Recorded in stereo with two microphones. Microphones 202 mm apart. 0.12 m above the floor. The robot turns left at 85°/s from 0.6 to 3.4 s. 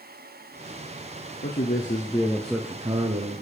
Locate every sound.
1.4 s a man speaking: 90° left, 2.5 m; by 3.4 s 75° right, 2.5 m